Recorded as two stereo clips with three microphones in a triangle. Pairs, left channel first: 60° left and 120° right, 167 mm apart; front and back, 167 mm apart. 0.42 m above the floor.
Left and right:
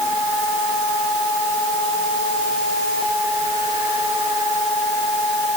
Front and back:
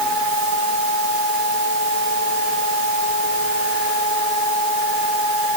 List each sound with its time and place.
Only background noise.